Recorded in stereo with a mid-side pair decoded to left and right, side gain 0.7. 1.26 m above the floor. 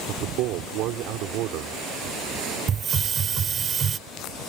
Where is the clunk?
I don't hear a clunk.